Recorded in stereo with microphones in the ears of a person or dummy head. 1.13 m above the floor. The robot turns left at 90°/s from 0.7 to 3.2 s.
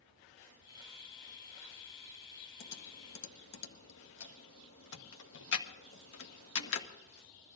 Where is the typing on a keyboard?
55° left (ahead or behind), 1.6 m; by 6.9 s 65° left (ahead or behind), 1.6 m.